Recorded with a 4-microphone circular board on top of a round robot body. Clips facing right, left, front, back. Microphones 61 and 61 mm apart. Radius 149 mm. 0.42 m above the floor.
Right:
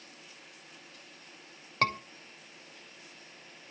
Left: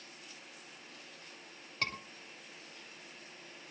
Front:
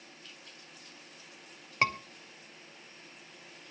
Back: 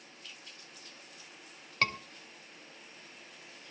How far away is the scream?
About 2.5 m.